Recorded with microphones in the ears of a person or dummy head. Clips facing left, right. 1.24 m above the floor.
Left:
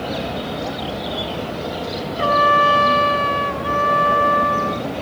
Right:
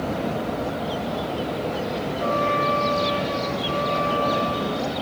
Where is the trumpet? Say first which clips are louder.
Left 6 dB; 85° left, 1.0 m.